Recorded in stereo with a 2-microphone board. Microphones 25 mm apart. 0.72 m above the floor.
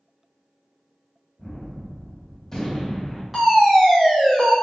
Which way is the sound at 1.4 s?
25° left (ahead or behind).